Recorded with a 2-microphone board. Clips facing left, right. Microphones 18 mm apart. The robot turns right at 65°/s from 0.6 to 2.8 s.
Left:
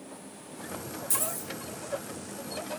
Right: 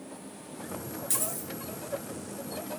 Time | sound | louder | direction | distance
1.1 | a dropped coin | left 2 dB | 20° right (ahead or behind) | 9.5 m